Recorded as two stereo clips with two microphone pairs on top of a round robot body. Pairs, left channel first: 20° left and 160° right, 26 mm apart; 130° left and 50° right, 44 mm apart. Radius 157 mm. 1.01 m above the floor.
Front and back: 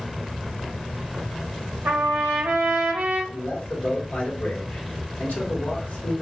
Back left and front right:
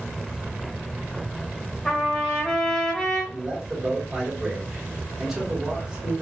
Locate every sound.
1.9 s a trumpet: 155° right, 0.7 m
3.3 s a man speaking: 30° left, 2 m